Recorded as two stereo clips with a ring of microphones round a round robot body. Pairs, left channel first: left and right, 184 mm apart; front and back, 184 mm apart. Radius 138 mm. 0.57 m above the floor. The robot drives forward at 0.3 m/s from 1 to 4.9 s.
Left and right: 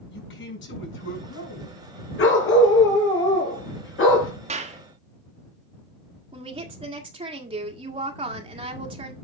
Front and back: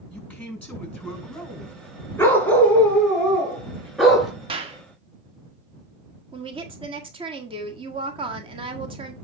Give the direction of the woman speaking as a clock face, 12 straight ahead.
5 o'clock.